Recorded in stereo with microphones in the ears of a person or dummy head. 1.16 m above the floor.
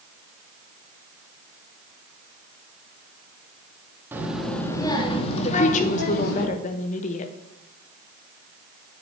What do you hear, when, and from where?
4.1 s a child speaking: 10° right (ahead or behind), 1.5 m; by 6.5 s 60° left (ahead or behind), 2 m
5.5 s a woman speaking: 40° left (ahead or behind), 0.8 m